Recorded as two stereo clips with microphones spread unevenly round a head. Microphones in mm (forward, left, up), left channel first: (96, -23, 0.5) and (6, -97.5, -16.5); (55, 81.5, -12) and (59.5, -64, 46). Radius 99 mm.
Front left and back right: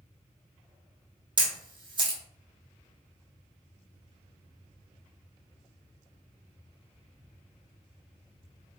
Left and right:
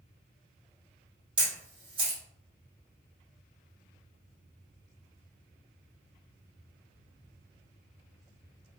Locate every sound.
1.4 s a camera shutter: 95° right, 0.7 m